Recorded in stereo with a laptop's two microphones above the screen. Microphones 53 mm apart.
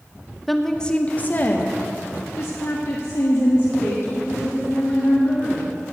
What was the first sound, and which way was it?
A woman speaking, centre (ahead or behind).